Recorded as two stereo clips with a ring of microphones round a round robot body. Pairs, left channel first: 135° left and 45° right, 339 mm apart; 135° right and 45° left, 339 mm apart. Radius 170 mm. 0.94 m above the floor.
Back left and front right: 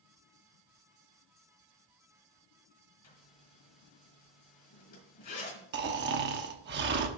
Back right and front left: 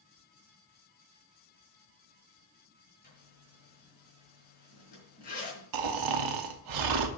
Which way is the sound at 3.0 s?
160° left.